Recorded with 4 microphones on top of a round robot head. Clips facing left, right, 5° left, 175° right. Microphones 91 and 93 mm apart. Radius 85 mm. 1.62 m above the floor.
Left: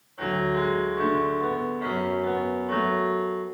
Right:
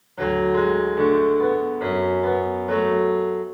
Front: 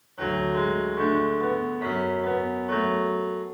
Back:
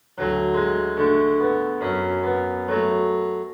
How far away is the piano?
About 2 m.